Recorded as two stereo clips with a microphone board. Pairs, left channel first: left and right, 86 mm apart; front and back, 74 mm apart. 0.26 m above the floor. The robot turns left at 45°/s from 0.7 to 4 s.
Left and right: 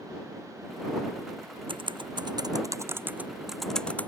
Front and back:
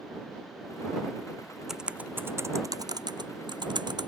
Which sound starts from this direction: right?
Typing on a keyboard, at 1.7 s.